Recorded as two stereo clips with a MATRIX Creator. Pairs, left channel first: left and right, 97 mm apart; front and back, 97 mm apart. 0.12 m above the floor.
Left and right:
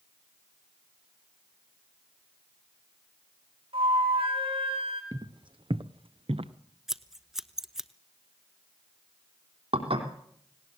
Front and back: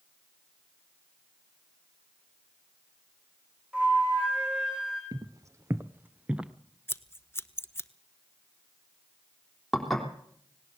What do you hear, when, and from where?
3.7 s a flute: 100° right, 6.5 m
5.1 s footsteps: 130° right, 1.1 m; by 6.5 s 100° right, 1.4 m
6.9 s scissors: 10° right, 0.9 m
9.7 s dishes clattering: 90° right, 3.5 m